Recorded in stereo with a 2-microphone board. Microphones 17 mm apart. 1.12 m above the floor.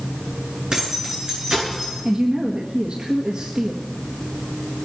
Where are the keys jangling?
50° right (ahead or behind), 8.5 m.